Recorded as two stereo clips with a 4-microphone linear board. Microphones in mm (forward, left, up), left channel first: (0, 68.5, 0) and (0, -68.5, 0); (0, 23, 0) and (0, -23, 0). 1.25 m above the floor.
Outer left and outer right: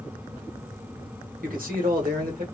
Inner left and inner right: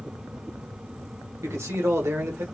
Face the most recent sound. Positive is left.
turn(degrees=-75)  # may be behind; listen again after turning